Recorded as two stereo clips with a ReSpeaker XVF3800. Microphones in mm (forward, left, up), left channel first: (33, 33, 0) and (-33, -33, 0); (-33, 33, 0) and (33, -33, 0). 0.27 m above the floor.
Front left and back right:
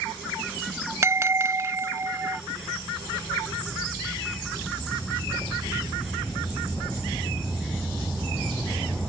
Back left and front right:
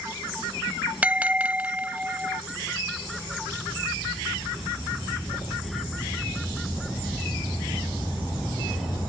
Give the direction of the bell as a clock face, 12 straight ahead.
4 o'clock.